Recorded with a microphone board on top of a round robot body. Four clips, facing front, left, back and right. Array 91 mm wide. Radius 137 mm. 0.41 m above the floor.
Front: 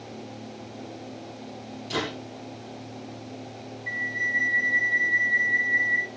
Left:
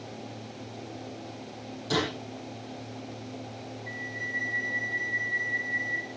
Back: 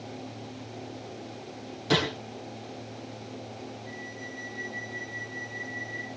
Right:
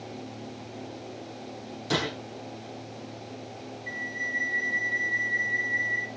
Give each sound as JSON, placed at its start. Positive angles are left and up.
{"t": 1.9, "sound": "a gunshot", "azimuth_deg": -160, "distance_m": 8.5}
{"t": 3.9, "sound": "a flute", "azimuth_deg": -15, "distance_m": 2.0}